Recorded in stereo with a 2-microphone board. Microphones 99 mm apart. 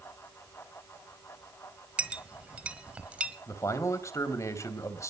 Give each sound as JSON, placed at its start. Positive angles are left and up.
{"t": 2.0, "sound": "a clink", "side_deg": -15, "distance_m": 1.4}
{"t": 3.5, "sound": "a man speaking", "side_deg": 30, "distance_m": 3.0}